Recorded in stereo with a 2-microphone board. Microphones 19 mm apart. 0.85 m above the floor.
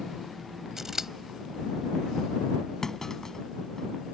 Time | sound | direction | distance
0.8 | scissors | 25° right (ahead or behind) | ?
2.8 | a clunk | 25° left (ahead or behind) | ?